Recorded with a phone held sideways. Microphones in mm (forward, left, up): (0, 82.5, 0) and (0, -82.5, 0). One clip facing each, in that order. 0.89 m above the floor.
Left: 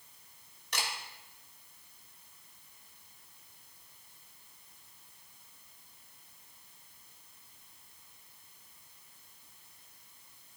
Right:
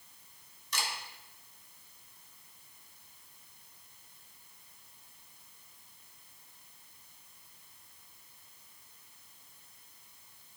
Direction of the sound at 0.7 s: 65° left (ahead or behind).